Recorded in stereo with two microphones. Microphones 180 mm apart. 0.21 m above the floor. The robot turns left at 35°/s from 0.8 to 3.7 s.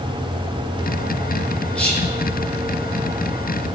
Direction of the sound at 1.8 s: 5° left (ahead or behind).